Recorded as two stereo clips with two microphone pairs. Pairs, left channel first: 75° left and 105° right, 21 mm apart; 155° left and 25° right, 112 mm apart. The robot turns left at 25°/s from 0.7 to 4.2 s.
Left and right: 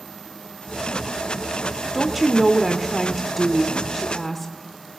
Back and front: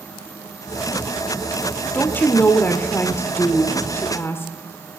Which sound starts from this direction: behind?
A woman speaking, at 1.9 s.